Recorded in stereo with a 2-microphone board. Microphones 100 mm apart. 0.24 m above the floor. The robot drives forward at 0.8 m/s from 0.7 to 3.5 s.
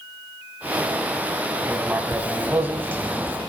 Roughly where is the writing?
Centre.